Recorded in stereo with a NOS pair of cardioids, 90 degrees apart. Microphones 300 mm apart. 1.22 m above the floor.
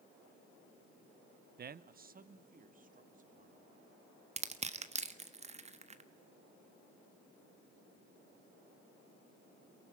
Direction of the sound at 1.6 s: 35° right.